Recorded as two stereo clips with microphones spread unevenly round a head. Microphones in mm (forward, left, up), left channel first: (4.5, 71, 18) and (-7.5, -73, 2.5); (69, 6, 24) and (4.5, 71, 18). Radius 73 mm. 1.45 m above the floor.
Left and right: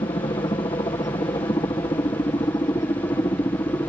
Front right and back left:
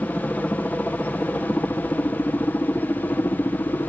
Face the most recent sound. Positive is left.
turn(degrees=15)